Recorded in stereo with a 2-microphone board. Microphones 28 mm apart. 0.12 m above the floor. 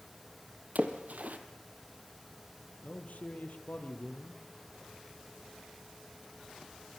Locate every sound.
0.8 s a splash: 70° right (ahead or behind), 2.5 m
2.8 s a man speaking: 65° left (ahead or behind), 3.5 m